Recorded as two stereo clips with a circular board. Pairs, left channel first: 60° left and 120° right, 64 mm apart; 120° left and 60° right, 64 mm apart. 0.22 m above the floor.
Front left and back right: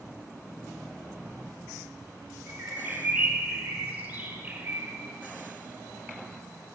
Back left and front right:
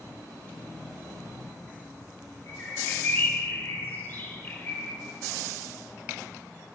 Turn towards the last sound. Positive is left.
turn(degrees=180)